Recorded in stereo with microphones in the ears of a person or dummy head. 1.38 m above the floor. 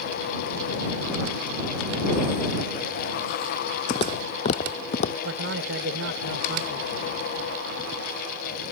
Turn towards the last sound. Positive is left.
turn(degrees=-90)